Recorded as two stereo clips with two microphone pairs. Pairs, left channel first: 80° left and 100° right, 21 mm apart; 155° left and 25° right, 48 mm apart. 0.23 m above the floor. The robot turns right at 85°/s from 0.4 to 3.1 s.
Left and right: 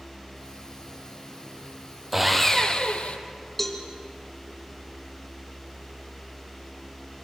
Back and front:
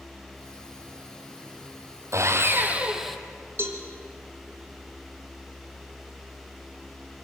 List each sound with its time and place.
2.1 s sawing: 20° right, 1.8 m; by 3.2 s 65° left, 1.8 m
3.6 s a cowbell: straight ahead, 2.5 m